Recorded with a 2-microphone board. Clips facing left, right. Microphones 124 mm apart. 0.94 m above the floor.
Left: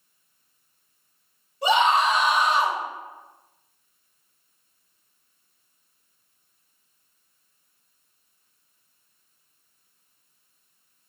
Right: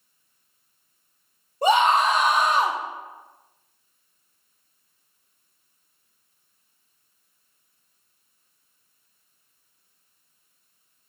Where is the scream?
45° right (ahead or behind), 0.6 m.